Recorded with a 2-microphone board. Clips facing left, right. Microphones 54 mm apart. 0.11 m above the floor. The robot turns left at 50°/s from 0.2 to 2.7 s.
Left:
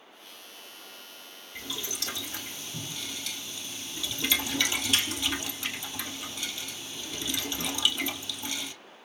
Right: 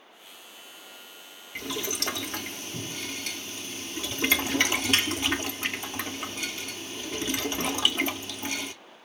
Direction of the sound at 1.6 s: 65° right (ahead or behind).